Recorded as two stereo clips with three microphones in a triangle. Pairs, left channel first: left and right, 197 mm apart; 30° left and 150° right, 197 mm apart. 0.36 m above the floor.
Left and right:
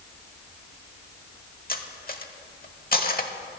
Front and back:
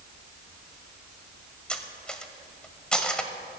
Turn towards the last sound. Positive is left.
turn(degrees=115)